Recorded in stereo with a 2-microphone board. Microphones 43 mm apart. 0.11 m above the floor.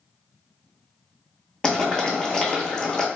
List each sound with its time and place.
1.6 s boiling: 15° left (ahead or behind), 0.9 m